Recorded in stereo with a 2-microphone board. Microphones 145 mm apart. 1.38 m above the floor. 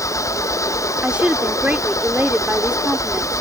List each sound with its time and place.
0.0 s an engine running: 20° left (ahead or behind)
1.0 s a woman speaking: 10° right (ahead or behind)